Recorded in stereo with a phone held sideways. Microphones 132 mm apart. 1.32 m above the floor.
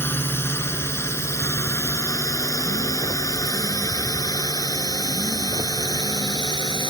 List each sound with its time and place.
0.0 s a drone: 15° left (ahead or behind); by 6.9 s 35° left (ahead or behind)